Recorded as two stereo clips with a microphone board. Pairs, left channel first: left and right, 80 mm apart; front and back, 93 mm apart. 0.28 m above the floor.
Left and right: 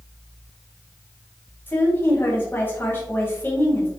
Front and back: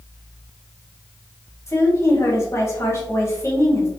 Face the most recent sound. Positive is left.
turn(degrees=40)